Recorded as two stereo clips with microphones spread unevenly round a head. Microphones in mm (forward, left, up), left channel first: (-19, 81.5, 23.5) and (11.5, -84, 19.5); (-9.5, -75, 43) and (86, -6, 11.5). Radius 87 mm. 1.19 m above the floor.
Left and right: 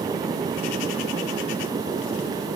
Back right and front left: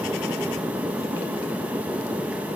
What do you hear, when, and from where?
Only background noise.